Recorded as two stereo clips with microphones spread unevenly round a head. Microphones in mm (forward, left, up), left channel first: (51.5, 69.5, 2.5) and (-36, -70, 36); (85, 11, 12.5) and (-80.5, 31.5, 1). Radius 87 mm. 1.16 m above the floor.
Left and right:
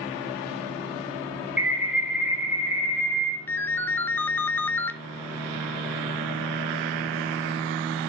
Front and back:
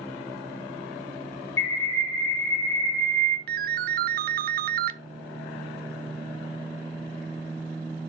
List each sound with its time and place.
1.6 s a bird: 35° right, 2.0 m
3.5 s a ringtone: 135° left, 0.6 m